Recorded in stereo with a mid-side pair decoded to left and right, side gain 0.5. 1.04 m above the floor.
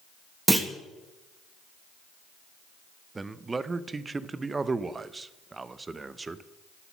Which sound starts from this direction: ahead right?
A man speaking, at 3.1 s.